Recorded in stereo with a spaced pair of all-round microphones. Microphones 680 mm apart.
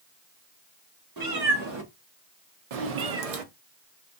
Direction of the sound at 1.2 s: 30° right (ahead or behind).